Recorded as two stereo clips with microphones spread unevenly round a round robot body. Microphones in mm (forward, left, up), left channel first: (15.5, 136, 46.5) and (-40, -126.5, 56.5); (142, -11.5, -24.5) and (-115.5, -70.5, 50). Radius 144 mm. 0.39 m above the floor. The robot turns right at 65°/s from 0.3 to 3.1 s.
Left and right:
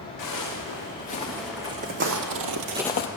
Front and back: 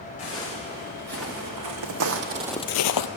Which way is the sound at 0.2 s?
85° left.